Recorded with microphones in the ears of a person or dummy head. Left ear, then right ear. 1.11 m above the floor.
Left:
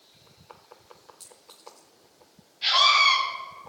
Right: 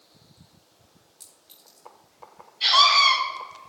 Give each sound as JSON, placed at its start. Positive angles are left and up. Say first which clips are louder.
{"t": 1.2, "sound": "a clink", "louder": "left 4 dB", "side_deg": 0, "distance_m": 4.0}
{"t": 2.6, "sound": "a scream", "louder": "right 2 dB", "side_deg": -70, "distance_m": 4.0}